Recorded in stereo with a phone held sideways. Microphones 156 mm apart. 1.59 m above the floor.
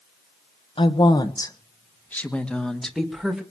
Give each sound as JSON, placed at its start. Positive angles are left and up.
{"t": 0.8, "sound": "a woman speaking", "side_deg": 35, "distance_m": 1.5}